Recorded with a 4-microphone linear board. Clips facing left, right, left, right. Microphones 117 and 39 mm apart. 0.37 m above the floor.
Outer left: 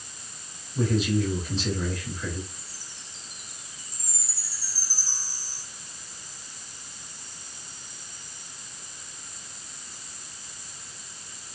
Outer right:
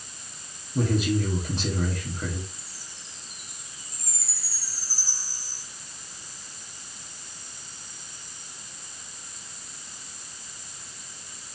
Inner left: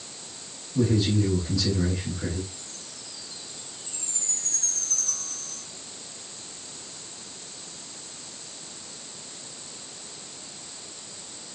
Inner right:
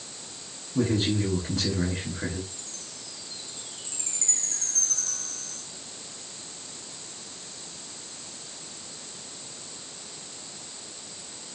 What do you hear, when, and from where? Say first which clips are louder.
0.8 s a man speaking: even, inner left 2 dB; 60° right (ahead or behind), 5.5 m
2.5 s a chime: even, even; 80° right, 5.5 m